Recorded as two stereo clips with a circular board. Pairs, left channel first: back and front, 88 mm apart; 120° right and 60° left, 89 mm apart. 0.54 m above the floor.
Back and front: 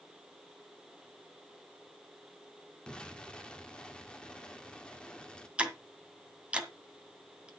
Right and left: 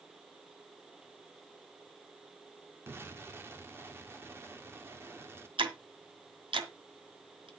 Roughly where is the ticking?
Left.